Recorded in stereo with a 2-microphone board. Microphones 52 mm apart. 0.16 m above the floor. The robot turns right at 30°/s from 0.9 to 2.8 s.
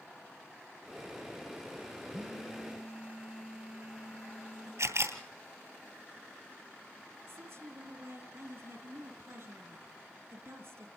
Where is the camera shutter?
70° right (ahead or behind), 2.5 m.